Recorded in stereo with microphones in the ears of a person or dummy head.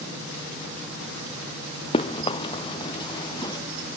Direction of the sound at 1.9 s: 35° left (ahead or behind).